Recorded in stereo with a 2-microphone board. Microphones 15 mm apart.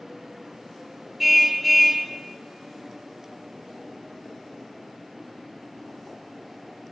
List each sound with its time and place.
1.2 s a car horn: centre (ahead or behind), 2 m